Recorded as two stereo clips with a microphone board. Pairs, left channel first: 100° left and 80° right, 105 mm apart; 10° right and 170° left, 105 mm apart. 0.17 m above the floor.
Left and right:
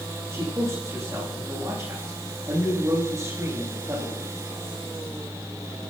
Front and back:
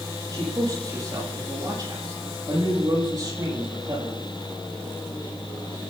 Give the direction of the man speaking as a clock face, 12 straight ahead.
5 o'clock.